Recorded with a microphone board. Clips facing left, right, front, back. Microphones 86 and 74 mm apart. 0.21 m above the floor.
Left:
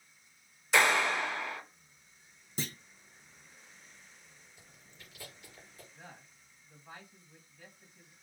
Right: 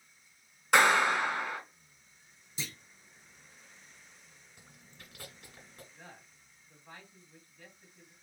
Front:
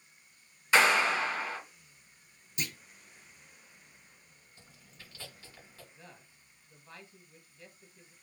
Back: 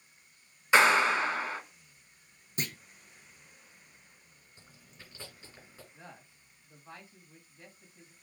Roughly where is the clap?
Right.